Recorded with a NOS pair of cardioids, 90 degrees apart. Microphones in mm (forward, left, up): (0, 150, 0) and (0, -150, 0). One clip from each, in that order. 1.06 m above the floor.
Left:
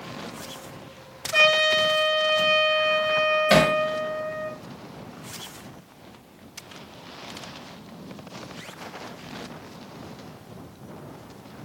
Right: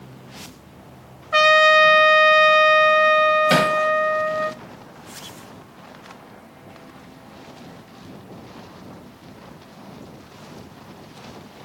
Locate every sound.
1.3 s a trumpet: 45° right, 1.0 m
3.5 s hammering: 10° right, 1.4 m